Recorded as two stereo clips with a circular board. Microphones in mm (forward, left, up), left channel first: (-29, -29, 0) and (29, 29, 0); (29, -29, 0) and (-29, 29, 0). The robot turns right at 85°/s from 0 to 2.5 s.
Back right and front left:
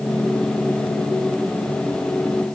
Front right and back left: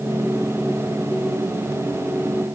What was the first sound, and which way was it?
Only background noise.